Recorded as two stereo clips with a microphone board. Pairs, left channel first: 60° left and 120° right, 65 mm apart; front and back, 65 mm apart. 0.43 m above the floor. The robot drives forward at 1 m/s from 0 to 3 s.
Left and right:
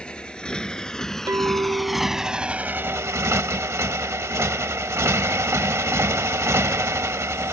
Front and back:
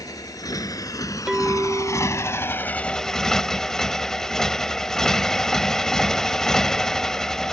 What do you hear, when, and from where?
0.0 s a motorcycle: 15° right; by 7.5 s 80° right
1.3 s a clink: 100° right; by 5.8 s 165° right